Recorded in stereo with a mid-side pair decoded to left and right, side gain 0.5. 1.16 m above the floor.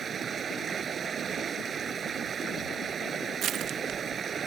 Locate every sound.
0.0 s running water: 40° right
3.4 s crushing: 65° right